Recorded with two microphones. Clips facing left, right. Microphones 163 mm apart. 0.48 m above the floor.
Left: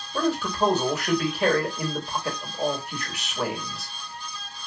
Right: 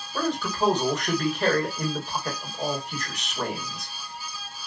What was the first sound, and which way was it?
A man speaking, 5° left (ahead or behind).